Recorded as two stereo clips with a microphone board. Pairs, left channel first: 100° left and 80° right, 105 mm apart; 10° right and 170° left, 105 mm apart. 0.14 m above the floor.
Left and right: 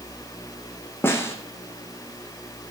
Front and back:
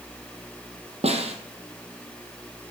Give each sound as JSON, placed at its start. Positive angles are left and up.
{"t": 1.0, "sound": "a snare drum", "azimuth_deg": 165, "distance_m": 2.0}